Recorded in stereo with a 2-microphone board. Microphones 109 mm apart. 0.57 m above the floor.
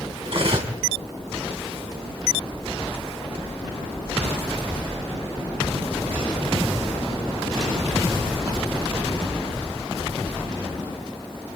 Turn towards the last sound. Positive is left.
turn(degrees=-60)  # may be behind; listen again after turning